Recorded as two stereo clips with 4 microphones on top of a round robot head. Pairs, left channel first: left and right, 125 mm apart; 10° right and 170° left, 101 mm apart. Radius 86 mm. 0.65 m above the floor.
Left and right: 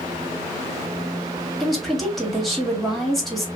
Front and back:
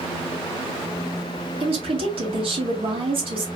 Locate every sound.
1.6 s a woman speaking: straight behind, 2 m